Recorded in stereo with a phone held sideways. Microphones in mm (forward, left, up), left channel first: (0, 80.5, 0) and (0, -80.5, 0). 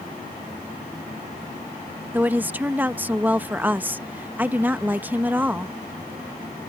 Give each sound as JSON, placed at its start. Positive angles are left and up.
{"t": 2.1, "sound": "a woman speaking", "side_deg": -10}